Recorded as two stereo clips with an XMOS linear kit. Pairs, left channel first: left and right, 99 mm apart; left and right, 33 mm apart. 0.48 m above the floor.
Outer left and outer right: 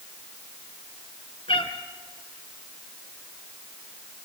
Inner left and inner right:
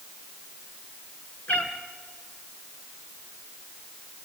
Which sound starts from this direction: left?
A cat meowing, at 1.5 s.